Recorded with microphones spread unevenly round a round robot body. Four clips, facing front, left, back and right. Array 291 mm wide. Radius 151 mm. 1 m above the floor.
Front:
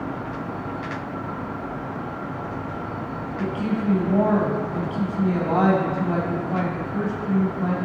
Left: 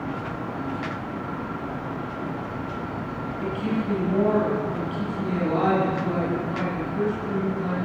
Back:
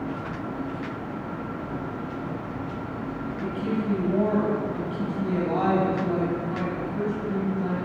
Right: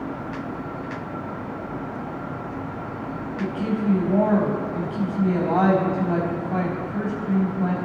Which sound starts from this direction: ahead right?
A woman speaking, at 3.4 s.